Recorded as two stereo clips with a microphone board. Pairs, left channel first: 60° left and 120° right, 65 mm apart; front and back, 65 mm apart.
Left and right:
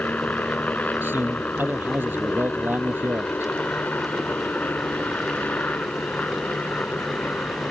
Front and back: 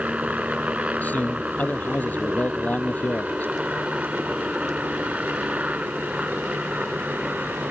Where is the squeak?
I don't hear a squeak.